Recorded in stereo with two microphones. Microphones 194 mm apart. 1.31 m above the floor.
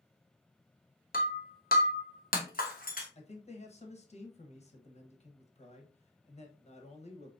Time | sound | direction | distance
1.1 | breaking glass | 45° left (ahead or behind) | 1.1 m
3.1 | a man speaking | 35° left (ahead or behind) | 1.0 m